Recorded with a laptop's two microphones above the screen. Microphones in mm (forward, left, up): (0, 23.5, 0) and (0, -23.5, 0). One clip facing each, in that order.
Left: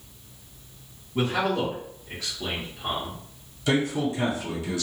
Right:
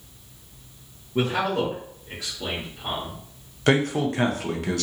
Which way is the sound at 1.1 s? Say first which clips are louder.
Right 1 dB; 35° right (ahead or behind).